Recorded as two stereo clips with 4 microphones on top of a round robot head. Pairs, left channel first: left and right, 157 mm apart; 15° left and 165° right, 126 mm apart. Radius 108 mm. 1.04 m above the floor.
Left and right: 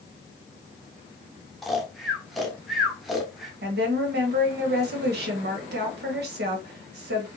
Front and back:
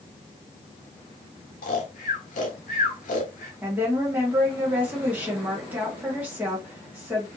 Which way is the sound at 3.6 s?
90° right.